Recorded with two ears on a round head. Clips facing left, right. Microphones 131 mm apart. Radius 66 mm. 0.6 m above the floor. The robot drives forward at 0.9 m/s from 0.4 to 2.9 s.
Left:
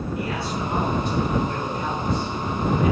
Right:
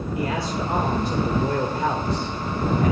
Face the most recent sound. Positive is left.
turn(degrees=-45)  # may be behind; listen again after turning